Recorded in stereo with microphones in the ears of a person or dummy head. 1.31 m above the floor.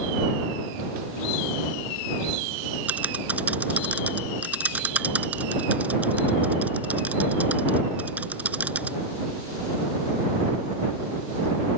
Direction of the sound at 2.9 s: 5° right (ahead or behind).